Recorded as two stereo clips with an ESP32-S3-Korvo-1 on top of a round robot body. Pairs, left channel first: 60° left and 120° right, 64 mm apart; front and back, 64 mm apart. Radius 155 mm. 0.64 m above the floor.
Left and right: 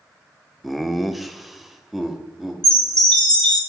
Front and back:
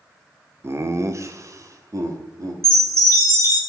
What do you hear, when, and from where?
0.6 s laughter: 150° left, 0.8 m; by 2.5 s 155° left, 1.7 m
2.6 s a chime: 135° left, 3.5 m